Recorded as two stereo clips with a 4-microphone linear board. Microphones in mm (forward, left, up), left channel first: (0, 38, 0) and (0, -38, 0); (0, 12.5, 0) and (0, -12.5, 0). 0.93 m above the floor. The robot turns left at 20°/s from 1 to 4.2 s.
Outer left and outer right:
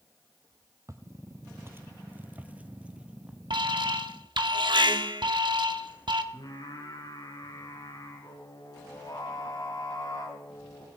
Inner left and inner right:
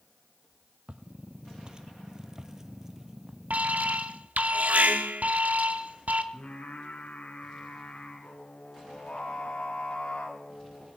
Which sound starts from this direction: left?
Singing, at 6.3 s.